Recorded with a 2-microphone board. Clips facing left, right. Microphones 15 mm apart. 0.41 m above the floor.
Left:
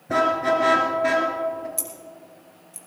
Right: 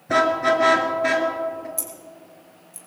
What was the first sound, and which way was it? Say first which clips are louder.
A car horn: right 2 dB; 35° right (ahead or behind).